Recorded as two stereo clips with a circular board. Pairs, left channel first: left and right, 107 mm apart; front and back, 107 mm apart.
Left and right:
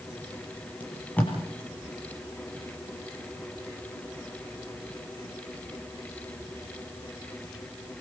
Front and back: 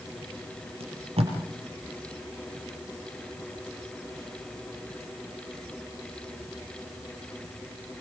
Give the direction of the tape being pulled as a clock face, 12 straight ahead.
7 o'clock.